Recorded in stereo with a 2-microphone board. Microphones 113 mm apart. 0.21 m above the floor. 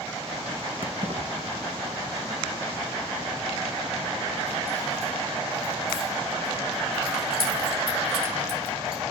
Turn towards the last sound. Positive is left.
turn(degrees=-50)  # may be behind; listen again after turning